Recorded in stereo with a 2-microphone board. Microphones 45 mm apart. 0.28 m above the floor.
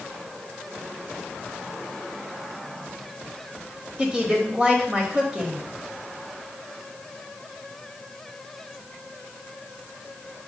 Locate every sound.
4.0 s a woman speaking: 20° right (ahead or behind), 0.9 m